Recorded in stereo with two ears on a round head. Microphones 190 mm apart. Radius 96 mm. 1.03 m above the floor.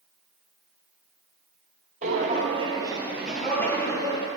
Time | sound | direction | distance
2.0 | footsteps | 35° right (ahead or behind) | 1.4 m